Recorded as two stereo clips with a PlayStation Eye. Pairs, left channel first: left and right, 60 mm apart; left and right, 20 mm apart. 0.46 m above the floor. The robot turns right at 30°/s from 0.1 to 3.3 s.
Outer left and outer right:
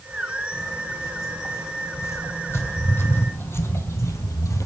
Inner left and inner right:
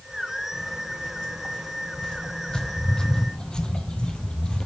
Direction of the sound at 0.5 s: 80° left.